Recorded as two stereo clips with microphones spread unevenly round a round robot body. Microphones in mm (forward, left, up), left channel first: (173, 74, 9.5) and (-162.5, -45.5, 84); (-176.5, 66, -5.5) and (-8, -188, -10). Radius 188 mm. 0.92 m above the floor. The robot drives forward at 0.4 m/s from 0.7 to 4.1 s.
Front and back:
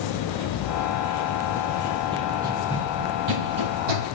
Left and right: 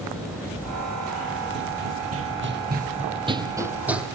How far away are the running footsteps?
About 1.7 m.